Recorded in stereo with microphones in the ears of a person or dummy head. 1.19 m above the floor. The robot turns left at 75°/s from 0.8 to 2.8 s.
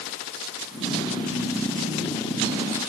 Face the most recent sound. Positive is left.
No sound to turn to.